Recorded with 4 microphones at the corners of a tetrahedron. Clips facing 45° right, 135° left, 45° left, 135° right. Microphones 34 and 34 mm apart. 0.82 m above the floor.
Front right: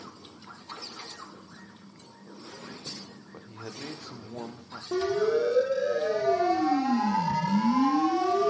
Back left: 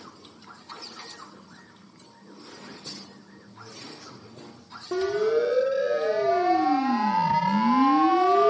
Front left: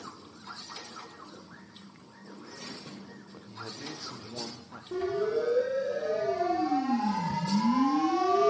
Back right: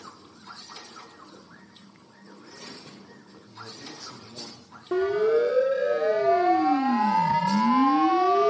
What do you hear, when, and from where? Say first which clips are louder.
3.3 s a man speaking: front right 5 dB, front left 1 dB; 30° right, 2 m; by 4.8 s 15° right, 1.4 m
4.9 s a siren: back left 2 dB, back right 7 dB; 155° right, 3.5 m; by 8.5 s 160° left, 1.1 m